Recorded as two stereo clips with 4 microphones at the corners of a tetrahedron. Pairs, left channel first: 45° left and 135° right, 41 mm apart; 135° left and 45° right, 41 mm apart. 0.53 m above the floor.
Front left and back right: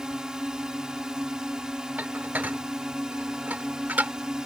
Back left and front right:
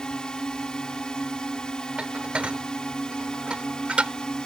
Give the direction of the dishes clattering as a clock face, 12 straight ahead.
3 o'clock.